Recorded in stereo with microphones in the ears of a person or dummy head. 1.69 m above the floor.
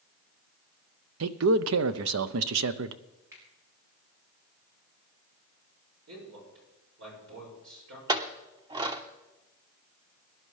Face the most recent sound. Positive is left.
turn(degrees=-20)  # may be behind; listen again after turning